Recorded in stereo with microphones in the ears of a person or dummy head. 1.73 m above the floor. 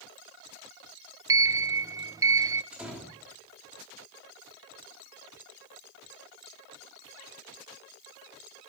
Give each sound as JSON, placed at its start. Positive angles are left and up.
{"t": 1.3, "sound": "a sliding door", "side_deg": -15, "distance_m": 0.5}
{"t": 2.7, "sound": "a door slam", "side_deg": -5, "distance_m": 3.5}